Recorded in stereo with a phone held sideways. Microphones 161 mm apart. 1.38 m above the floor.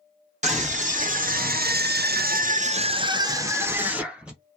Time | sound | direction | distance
0.4 | a scream | 45° right (ahead or behind) | 1.1 m